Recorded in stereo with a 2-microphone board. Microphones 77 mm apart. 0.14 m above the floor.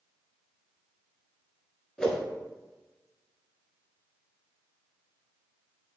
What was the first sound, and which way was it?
A whoosh, 10° left (ahead or behind).